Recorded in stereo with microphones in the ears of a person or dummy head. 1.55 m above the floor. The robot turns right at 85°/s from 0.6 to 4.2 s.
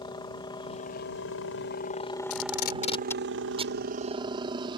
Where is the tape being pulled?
80° left; by 3.8 s 45° right (ahead or behind).